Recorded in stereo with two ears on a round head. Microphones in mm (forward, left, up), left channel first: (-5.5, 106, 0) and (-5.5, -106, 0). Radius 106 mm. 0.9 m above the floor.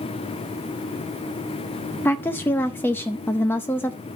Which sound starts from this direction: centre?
A woman speaking, at 2.0 s.